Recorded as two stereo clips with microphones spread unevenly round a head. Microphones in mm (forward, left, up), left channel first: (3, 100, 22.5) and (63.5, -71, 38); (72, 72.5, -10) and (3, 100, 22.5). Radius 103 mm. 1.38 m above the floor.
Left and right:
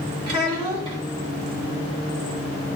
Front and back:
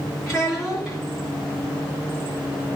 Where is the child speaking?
130° right, 1.1 m.